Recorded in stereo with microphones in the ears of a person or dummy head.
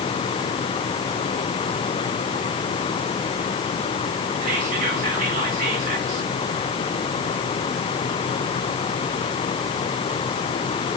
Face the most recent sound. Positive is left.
turn(degrees=-40)  # may be behind; listen again after turning